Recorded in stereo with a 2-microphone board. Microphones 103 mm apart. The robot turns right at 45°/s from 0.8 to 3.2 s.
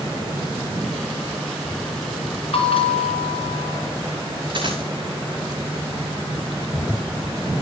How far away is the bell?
About 2.5 m.